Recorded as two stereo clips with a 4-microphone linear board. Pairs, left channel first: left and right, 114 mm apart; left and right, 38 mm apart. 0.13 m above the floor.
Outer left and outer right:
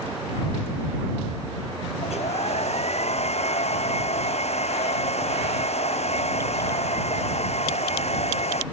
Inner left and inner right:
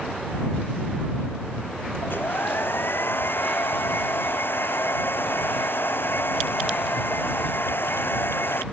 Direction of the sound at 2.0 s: 70° left (ahead or behind).